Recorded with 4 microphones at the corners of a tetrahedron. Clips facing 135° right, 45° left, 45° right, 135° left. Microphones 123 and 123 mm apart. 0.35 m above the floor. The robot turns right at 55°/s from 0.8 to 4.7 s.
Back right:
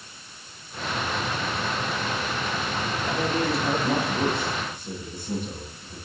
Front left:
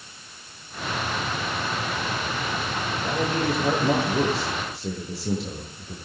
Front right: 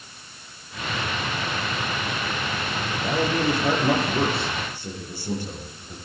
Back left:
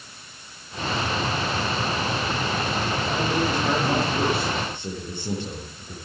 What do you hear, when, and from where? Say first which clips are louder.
2.9 s a man speaking: front left 1 dB, front right 3 dB; 35° right, 8.5 m; by 6.0 s 65° left, 8.5 m